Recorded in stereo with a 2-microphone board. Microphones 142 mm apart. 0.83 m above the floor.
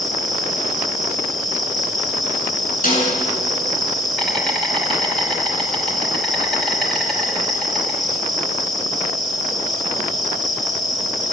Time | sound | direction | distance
0.0 | an insect | centre (ahead or behind) | 6.5 m
2.8 | a snare drum | 85° left | 10 m